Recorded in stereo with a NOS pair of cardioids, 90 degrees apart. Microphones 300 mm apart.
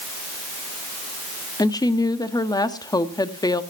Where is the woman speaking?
10° left, 1.7 m.